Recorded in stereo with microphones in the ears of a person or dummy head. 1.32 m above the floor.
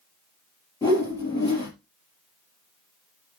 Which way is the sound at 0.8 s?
15° left (ahead or behind).